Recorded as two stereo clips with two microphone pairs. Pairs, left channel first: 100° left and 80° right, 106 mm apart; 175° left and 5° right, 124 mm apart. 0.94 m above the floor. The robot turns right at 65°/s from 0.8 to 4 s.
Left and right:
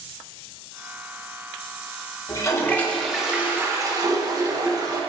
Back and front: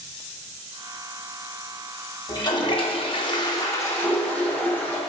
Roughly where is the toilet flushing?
Behind left.